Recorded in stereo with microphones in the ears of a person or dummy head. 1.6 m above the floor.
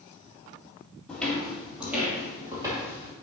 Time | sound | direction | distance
1.1 | footsteps | 5° left (ahead or behind) | 3 m